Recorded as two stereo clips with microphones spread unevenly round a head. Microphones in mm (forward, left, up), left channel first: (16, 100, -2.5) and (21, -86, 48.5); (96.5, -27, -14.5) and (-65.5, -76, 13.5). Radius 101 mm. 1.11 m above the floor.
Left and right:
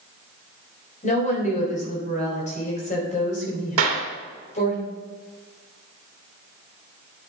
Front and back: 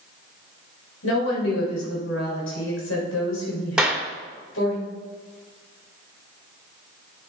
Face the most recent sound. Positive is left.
turn(degrees=-75)